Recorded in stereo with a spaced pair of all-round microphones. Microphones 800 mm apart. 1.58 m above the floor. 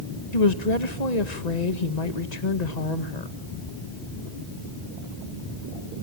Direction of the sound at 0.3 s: 55° left (ahead or behind).